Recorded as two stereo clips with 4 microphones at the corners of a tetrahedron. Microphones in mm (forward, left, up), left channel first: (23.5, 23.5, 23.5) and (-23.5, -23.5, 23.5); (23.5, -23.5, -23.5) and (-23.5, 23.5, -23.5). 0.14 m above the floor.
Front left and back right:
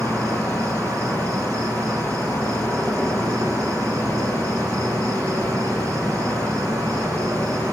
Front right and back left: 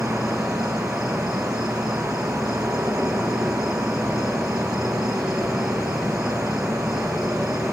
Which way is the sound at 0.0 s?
145° right.